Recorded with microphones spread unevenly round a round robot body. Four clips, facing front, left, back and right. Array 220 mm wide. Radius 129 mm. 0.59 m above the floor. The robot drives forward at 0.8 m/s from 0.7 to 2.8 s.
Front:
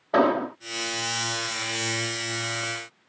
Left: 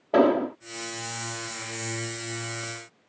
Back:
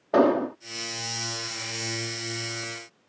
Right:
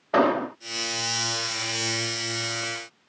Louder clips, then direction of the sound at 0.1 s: Left 1 dB, back 1 dB; 125° left.